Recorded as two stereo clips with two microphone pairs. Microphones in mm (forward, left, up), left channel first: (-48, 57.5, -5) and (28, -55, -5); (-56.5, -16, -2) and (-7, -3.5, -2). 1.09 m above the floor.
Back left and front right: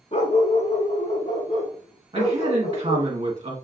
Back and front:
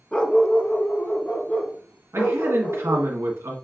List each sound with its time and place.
0.1 s a dog barking: 135° left, 0.7 m; by 3.1 s 150° left, 2 m
2.1 s a man speaking: 5° right, 1.2 m